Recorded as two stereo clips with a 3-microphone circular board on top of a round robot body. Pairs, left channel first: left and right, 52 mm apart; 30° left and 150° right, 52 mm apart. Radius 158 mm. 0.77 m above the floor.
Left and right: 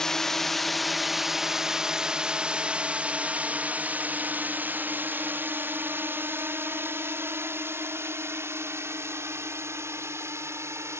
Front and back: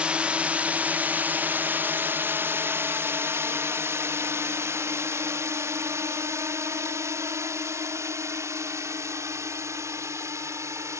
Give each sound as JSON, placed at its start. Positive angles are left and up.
{"t": 0.0, "sound": "a drone", "azimuth_deg": 160}